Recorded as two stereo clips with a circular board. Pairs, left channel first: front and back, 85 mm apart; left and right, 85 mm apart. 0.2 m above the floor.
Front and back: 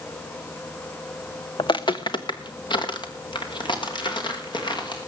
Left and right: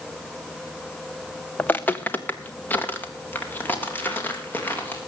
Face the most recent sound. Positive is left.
turn(degrees=25)